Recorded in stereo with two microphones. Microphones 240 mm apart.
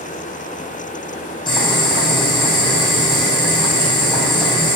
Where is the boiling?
20° left (ahead or behind), 5.5 m.